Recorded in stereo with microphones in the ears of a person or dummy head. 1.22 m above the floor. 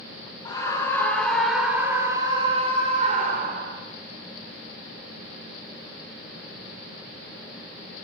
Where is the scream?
20° left (ahead or behind), 3 m; by 3.8 s 55° right (ahead or behind), 4 m.